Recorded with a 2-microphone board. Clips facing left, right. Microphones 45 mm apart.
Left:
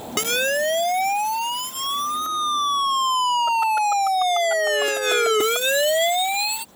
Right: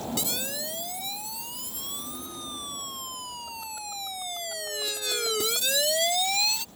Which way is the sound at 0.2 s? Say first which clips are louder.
Left 13 dB; 60° left (ahead or behind).